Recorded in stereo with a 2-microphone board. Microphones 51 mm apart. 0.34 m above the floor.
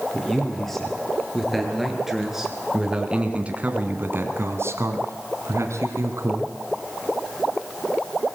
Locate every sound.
0.1 s a man speaking: 10° left (ahead or behind), 6.5 m; by 6.5 s 65° right (ahead or behind), 3.5 m